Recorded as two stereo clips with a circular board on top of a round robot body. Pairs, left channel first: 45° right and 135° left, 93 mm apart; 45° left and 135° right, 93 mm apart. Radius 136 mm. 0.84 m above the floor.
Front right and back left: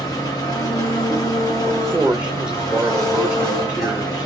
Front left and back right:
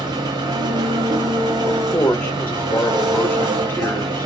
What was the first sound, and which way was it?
An engine running, 95° right.